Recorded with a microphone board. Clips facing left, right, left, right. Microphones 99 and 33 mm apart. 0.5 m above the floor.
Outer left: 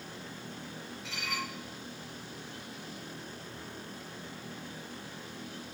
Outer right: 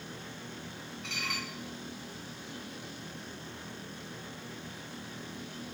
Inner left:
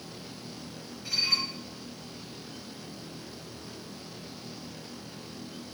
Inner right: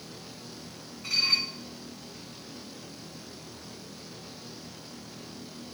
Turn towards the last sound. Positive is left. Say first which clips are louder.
# outer left 1 dB, inner right 2 dB
turn(degrees=-75)  # may be behind; listen again after turning